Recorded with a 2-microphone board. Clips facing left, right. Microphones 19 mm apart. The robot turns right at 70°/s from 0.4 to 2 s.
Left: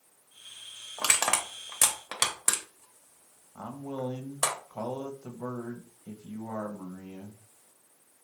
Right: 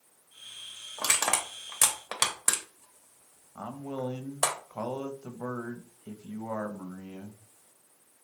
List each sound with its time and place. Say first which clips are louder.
1.0 s crushing: left 1 dB; 60° left (ahead or behind), 0.8 m; by 4.5 s 5° right (ahead or behind), 0.8 m
3.5 s a man speaking: even; 70° right (ahead or behind), 0.7 m